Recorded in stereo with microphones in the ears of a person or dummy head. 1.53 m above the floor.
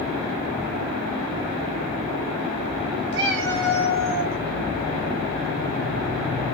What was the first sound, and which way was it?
A cat meowing, 55° right (ahead or behind).